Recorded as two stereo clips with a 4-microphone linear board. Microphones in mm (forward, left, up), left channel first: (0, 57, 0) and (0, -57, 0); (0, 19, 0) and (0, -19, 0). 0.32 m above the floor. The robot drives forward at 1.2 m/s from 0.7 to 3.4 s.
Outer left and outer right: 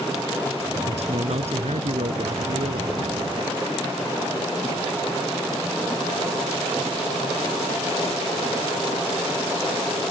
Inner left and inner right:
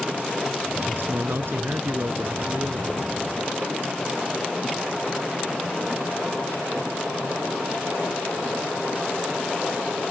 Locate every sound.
0.9 s a man speaking: 65° right (ahead or behind); by 3.0 s 70° right (ahead or behind)